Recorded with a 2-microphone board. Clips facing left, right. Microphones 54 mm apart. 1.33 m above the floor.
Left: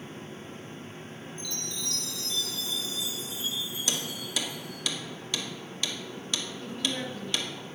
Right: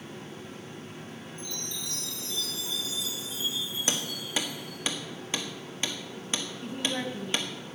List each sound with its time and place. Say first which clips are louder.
1.4 s a chime: left 2 dB; 70° left (ahead or behind), 2.5 m
3.9 s hammering: right 2 dB; 30° right (ahead or behind), 1.5 m
6.6 s a woman speaking: right 2 dB; 30° right (ahead or behind), 1.4 m